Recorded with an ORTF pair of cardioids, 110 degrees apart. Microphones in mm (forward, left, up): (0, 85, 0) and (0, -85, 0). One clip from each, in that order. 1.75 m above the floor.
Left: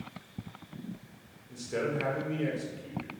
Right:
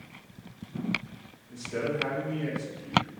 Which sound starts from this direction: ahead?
A man speaking, at 1.5 s.